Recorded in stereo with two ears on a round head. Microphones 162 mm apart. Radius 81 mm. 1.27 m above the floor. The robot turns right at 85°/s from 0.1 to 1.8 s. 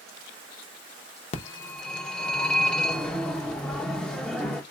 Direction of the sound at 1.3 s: 135° left.